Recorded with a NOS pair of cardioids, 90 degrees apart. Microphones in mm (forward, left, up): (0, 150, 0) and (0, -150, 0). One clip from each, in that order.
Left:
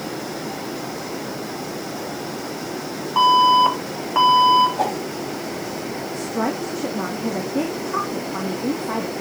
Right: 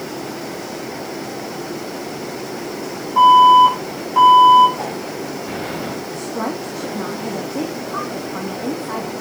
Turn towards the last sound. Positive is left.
turn(degrees=15)